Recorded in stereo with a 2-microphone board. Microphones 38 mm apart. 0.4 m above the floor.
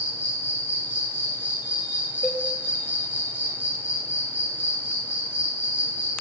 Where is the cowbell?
50° left (ahead or behind), 0.6 m.